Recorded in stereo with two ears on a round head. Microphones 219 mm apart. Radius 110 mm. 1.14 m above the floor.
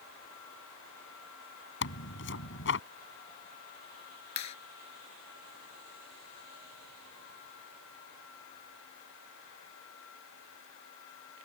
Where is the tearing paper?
55° left (ahead or behind).